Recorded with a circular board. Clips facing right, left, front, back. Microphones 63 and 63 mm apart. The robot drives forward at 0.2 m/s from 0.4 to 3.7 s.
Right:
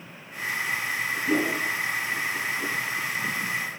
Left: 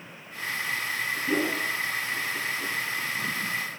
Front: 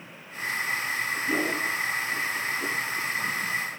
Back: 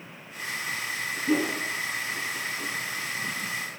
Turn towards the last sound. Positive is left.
turn(degrees=175)